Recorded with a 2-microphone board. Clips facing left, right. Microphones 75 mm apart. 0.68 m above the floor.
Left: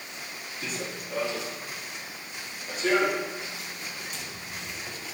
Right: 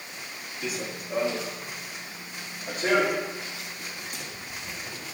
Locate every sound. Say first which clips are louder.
0.6 s running footsteps: right 2 dB; centre (ahead or behind), 1.1 m; by 5.0 s 60° right (ahead or behind), 4.5 m